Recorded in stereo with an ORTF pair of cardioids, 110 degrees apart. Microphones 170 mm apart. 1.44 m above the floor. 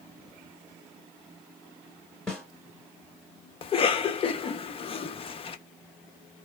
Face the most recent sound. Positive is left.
turn(degrees=35)